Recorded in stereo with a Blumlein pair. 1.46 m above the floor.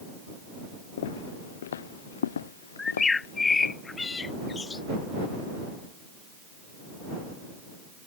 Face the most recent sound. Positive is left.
turn(degrees=15)